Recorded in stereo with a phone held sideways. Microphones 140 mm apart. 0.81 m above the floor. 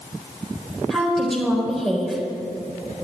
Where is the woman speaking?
5° left (ahead or behind), 4 m.